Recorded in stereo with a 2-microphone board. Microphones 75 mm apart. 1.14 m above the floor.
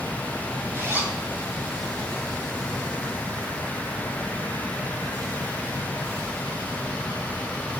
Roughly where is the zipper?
Right.